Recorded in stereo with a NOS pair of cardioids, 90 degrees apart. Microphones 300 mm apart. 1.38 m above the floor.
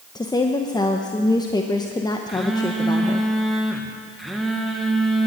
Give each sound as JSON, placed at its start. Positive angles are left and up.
{"t": 0.1, "sound": "a woman speaking", "azimuth_deg": 15, "distance_m": 0.8}
{"t": 2.3, "sound": "a phone buzzing", "azimuth_deg": 0, "distance_m": 1.4}